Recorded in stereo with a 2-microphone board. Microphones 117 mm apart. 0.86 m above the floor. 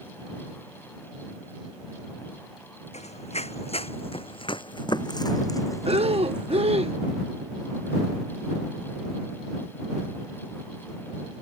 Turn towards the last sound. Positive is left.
turn(degrees=-55)  # may be behind; listen again after turning